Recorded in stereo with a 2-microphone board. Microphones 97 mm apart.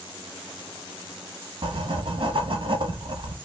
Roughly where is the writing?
Right.